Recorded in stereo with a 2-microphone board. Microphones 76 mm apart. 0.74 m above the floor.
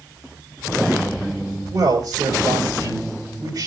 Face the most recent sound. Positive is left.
turn(degrees=-60)  # may be behind; listen again after turning